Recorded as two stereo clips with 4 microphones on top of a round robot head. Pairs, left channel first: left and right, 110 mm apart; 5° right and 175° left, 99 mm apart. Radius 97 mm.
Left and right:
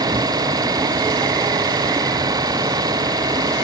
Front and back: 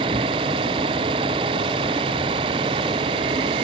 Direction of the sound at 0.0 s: 140° right.